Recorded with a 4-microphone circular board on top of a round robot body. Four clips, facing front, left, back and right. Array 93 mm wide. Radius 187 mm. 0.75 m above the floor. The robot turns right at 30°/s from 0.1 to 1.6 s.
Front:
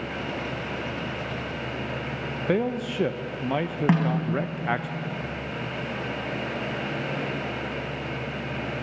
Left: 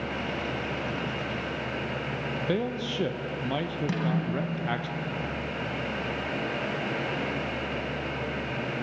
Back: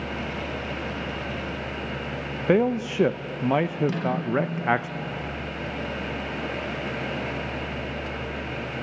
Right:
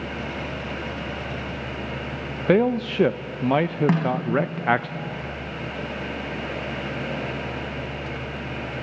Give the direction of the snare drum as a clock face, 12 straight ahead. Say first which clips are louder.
Right 6 dB, front 3 dB; 1 o'clock.